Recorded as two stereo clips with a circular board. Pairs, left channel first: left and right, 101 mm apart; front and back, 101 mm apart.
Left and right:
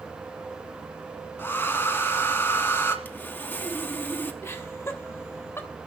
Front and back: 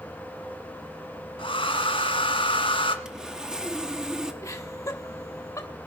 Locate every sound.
1.4 s a hair dryer: 20° left, 1.6 m
3.0 s sawing: 110° left, 1.2 m
4.4 s laughter: 40° left, 1.1 m